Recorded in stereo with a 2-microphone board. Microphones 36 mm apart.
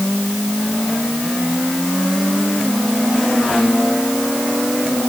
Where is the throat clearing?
I don't hear throat clearing.